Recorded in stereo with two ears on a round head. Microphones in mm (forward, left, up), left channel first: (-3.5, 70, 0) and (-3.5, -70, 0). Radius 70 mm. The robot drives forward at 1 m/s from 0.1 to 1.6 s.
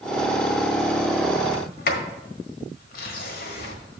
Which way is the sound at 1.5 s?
60° left (ahead or behind).